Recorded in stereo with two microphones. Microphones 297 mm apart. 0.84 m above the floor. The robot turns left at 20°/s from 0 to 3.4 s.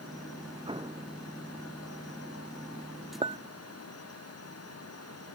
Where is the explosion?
15° right (ahead or behind); by 1.1 s 25° right (ahead or behind).